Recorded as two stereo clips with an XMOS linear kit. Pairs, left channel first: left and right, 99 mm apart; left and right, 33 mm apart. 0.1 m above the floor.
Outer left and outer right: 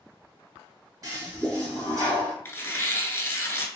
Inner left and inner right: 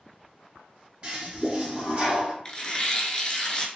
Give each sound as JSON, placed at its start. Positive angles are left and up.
{"t": 1.0, "sound": "a toilet flushing", "side_deg": -35, "distance_m": 1.5}
{"t": 2.5, "sound": "tearing paper", "side_deg": 25, "distance_m": 0.6}